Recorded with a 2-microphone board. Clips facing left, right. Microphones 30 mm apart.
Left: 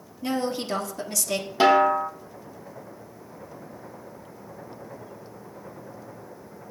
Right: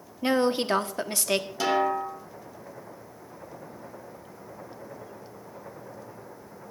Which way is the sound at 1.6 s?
35° left (ahead or behind).